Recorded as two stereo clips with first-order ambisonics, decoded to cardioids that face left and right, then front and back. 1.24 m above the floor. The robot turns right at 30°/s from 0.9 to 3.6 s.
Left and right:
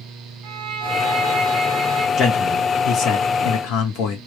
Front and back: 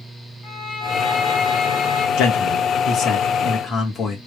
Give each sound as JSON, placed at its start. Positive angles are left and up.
{"t": 0.4, "sound": "a violin", "azimuth_deg": -55, "distance_m": 2.5}
{"t": 2.2, "sound": "a man speaking", "azimuth_deg": 25, "distance_m": 1.9}